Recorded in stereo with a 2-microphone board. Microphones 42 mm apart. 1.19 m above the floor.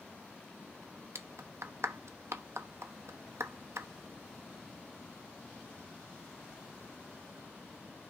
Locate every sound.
1.1 s a clap: 75° right (ahead or behind), 0.9 m